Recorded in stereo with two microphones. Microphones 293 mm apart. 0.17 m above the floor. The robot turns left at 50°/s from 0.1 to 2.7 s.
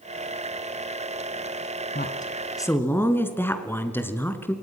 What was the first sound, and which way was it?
A woman speaking, 45° left.